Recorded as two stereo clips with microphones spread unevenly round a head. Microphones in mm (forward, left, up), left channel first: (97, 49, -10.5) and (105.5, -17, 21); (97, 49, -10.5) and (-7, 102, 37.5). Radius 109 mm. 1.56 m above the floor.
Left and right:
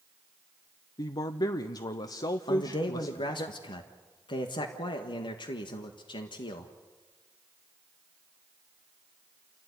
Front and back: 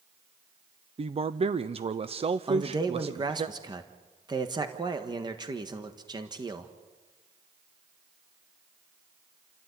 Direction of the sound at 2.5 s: 105° left.